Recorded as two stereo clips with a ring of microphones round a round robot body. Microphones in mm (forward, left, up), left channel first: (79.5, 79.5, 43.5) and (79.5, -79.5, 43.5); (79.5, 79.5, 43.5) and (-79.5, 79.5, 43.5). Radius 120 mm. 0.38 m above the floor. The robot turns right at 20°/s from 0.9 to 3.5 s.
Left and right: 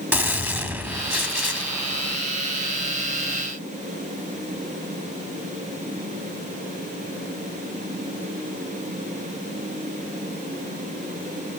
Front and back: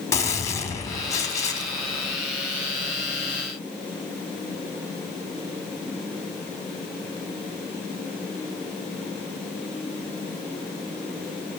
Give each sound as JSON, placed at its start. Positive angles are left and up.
{"t": 0.1, "sound": "a gunshot", "azimuth_deg": -35, "distance_m": 1.3}